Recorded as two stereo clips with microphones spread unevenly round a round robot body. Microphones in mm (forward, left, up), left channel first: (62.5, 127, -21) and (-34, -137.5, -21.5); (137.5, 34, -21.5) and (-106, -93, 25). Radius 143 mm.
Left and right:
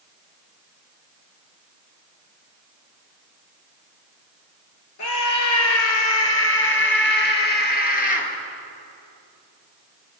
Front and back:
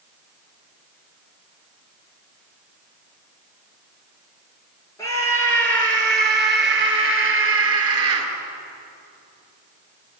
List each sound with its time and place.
5.0 s a scream: 110° left, 5 m; by 8.3 s 135° left, 4.5 m